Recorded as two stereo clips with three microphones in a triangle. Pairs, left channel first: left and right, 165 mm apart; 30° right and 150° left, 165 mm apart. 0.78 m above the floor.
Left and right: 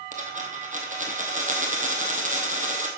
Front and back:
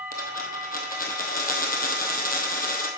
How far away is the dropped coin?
About 1.5 m.